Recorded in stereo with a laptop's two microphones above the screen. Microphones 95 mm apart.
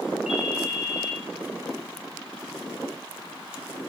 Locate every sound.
0.3 s a ringtone: 5° right (ahead or behind), 0.7 m